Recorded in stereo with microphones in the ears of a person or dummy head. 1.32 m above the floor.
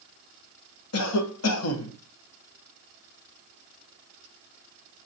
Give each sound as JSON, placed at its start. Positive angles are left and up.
{"t": 0.9, "sound": "a cough", "side_deg": 85, "distance_m": 0.8}